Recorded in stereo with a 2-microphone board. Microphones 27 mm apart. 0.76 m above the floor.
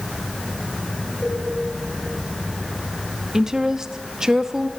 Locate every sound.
1.2 s a cowbell: 50° left (ahead or behind), 9 m
3.3 s a woman speaking: 15° right (ahead or behind), 0.7 m